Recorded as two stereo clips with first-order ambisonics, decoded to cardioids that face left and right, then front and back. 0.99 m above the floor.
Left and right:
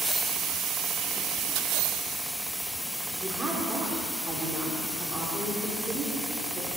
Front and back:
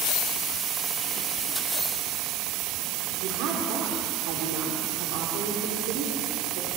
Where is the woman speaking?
165° right, 2.5 m.